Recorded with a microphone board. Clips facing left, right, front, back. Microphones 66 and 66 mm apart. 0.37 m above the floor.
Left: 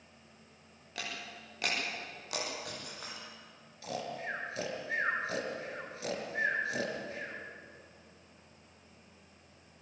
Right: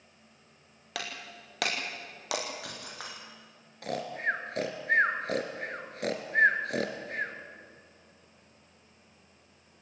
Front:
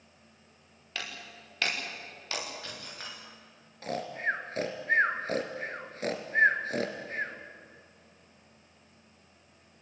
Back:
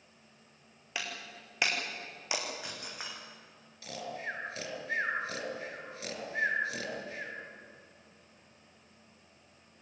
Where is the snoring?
50° right, 3 m.